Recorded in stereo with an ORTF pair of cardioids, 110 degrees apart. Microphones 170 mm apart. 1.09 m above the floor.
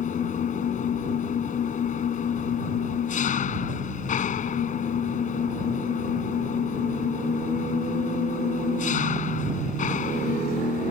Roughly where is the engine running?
Ahead left.